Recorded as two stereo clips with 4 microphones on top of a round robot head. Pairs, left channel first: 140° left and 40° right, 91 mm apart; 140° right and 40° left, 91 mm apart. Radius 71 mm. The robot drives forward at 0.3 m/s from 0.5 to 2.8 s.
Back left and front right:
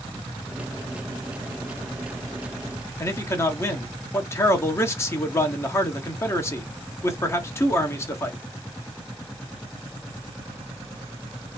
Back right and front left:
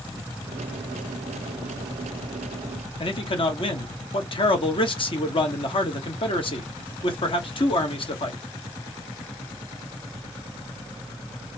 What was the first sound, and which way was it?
A man speaking, 155° right.